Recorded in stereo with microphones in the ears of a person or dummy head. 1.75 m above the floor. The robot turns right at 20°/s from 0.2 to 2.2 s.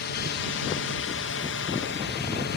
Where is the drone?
60° left (ahead or behind); by 2.6 s 50° left (ahead or behind).